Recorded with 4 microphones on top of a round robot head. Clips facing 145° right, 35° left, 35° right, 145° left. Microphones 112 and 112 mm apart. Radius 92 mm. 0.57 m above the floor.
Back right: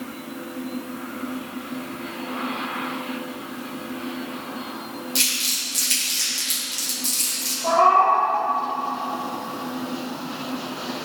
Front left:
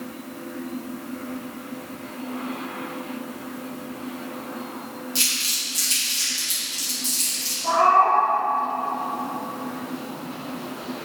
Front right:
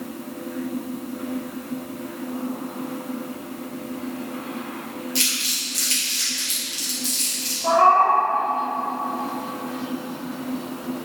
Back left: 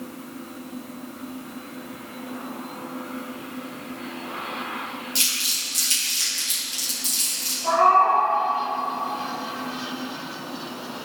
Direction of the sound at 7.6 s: 95° right.